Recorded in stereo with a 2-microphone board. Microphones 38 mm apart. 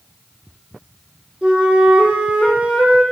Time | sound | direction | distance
1.4 | a flute | 25° right (ahead or behind) | 5 m